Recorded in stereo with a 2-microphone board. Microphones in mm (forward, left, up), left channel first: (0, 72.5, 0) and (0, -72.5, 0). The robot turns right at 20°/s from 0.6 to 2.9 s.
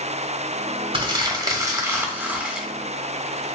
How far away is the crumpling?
About 1.1 m.